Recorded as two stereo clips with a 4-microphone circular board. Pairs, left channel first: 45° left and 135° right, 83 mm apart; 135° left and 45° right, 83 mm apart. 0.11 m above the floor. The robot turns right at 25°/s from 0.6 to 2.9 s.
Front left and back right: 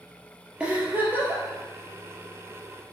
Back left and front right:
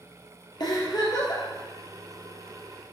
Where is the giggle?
150° left, 2.5 m; by 1.4 s 170° left, 2.5 m.